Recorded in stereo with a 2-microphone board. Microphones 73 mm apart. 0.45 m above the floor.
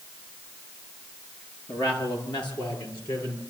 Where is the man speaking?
80° left, 6.5 m; by 3.4 s 70° left (ahead or behind), 8 m.